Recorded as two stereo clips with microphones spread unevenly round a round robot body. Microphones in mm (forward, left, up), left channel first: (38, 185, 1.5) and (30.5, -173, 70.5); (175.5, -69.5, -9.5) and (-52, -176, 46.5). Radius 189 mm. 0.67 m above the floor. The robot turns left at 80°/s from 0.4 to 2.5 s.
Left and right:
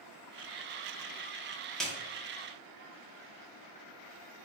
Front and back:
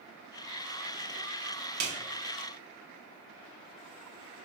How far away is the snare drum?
About 0.6 m.